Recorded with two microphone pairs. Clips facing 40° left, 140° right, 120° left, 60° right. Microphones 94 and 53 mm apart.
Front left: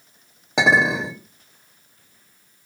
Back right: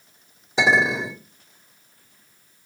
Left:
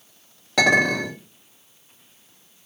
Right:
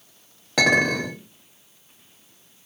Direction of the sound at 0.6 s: 30° left.